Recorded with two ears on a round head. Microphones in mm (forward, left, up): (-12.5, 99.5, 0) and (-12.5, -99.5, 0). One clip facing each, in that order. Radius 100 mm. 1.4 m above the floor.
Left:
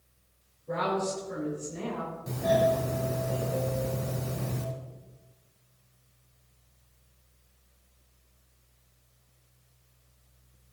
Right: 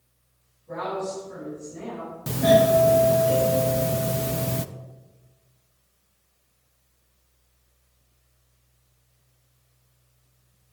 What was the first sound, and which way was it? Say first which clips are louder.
A woman speaking: even; 60° left (ahead or behind).